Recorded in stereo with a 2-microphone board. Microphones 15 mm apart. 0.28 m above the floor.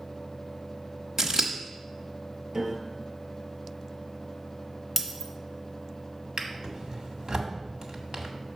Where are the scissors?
40° right (ahead or behind), 1.0 m.